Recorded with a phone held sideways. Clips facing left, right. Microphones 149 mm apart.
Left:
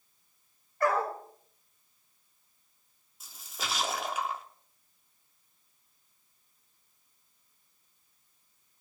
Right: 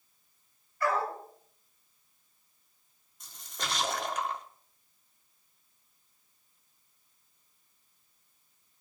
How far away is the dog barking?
About 2.5 m.